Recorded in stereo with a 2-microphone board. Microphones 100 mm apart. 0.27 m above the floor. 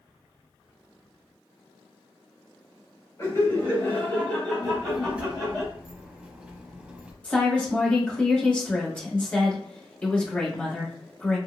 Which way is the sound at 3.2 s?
30° left (ahead or behind).